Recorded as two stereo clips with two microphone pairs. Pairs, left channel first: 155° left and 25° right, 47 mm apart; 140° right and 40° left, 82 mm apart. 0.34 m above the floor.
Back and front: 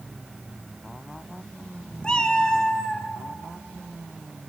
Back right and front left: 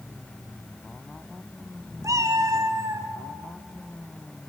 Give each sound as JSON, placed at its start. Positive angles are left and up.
{"t": 2.0, "sound": "a cat meowing", "azimuth_deg": 85, "distance_m": 1.1}